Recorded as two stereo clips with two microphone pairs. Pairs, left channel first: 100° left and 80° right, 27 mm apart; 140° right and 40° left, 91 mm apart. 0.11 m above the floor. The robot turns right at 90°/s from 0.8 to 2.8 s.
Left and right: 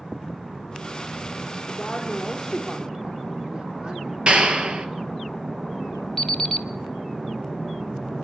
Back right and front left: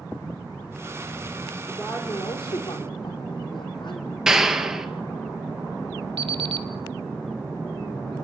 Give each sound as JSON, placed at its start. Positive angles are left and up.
{"t": 1.7, "sound": "a woman speaking", "azimuth_deg": 135, "distance_m": 3.5}
{"t": 4.3, "sound": "a clap", "azimuth_deg": -45, "distance_m": 1.9}
{"t": 6.2, "sound": "an alarm clock", "azimuth_deg": 30, "distance_m": 1.8}